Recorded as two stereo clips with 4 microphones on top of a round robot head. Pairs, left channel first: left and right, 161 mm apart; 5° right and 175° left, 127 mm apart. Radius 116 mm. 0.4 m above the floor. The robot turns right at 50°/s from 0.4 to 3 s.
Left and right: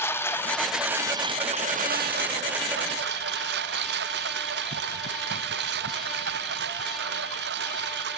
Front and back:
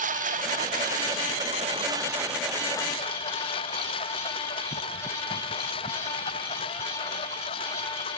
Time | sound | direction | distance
0.0 | a lawn mower | 165° left | ?